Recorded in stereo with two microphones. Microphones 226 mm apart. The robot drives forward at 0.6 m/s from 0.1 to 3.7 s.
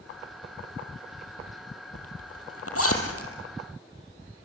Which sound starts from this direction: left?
A zipper, at 1.9 s.